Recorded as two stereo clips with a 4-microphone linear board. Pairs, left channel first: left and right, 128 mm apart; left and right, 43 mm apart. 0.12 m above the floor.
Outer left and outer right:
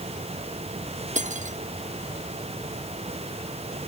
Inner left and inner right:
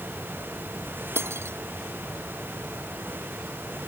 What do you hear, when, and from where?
1.1 s cutlery clinking: 75° right (ahead or behind)